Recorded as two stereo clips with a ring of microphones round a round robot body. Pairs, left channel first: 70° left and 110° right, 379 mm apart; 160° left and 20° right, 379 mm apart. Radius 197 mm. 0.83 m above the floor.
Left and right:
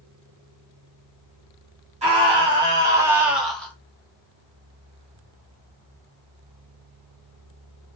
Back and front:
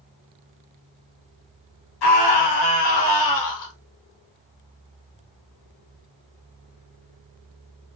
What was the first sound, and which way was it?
A scream, 175° left.